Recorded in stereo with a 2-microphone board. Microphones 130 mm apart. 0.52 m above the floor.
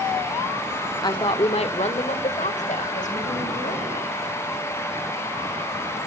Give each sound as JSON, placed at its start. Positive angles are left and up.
{"t": 1.0, "sound": "a woman speaking", "side_deg": 30, "distance_m": 1.0}